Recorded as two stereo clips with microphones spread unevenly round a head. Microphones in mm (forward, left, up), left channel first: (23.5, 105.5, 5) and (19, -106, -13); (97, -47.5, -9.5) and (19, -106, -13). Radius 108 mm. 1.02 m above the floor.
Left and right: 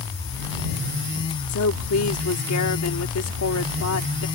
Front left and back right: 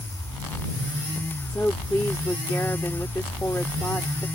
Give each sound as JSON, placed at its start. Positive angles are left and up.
{"t": 1.5, "sound": "a woman speaking", "azimuth_deg": 115}